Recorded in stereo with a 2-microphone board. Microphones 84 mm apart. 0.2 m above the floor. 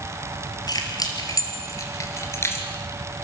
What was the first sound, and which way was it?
Keys jangling, 50° left (ahead or behind).